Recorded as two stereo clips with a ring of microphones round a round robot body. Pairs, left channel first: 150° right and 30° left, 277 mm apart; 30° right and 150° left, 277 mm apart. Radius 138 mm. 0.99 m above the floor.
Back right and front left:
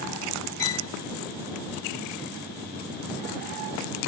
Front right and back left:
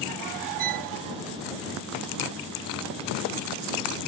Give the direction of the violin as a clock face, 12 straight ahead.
6 o'clock.